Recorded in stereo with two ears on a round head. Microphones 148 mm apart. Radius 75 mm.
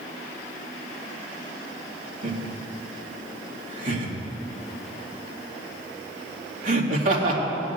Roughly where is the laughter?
Right.